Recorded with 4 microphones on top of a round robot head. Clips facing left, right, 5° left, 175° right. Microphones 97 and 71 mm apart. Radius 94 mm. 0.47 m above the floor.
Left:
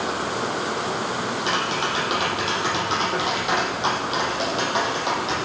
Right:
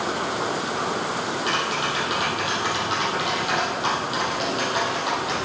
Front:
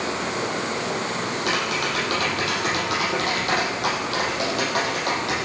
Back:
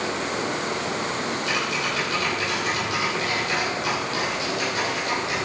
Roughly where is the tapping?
Ahead left.